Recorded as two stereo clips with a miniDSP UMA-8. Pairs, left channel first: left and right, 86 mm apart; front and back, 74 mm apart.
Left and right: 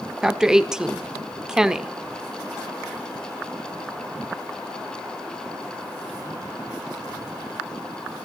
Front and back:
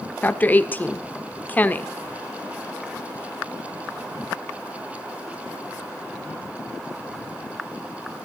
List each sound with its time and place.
0.2 s a woman speaking: 15° right, 1.3 m